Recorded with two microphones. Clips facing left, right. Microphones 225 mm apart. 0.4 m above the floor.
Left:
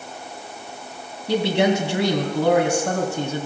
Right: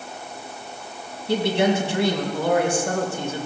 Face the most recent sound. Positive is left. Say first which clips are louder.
# left 1 dB
turn(degrees=65)  # may be behind; listen again after turning